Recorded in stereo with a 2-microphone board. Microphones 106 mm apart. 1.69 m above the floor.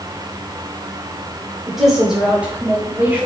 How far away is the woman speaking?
About 5 m.